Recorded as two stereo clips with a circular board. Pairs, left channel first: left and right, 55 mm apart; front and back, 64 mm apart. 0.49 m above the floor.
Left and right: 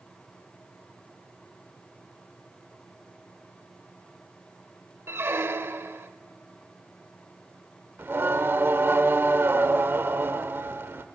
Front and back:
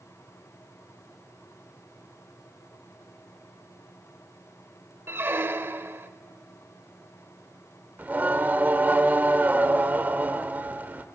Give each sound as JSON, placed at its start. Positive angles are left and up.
{"t": 5.1, "sound": "a squeak", "azimuth_deg": -130, "distance_m": 0.7}
{"t": 8.0, "sound": "singing", "azimuth_deg": -125, "distance_m": 1.1}